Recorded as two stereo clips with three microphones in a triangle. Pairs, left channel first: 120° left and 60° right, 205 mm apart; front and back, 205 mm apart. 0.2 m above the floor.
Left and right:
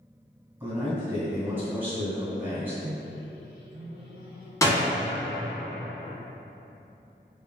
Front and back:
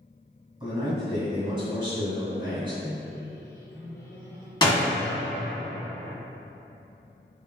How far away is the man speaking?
About 1.7 m.